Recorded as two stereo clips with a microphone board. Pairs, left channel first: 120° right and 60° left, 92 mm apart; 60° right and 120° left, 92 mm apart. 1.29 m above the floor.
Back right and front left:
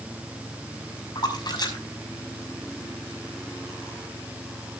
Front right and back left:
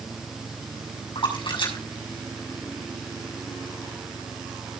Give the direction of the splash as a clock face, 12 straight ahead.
3 o'clock.